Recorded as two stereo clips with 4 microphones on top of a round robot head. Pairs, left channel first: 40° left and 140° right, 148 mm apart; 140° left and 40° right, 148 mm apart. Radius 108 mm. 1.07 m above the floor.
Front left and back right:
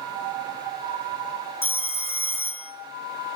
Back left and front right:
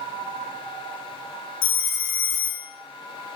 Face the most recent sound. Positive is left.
turn(degrees=115)